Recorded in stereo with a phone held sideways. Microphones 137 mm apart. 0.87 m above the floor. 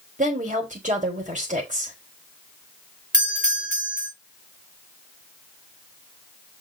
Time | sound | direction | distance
0.2 | a woman speaking | 70° right (ahead or behind) | 4 m
3.1 | a doorbell | 75° right (ahead or behind) | 4.5 m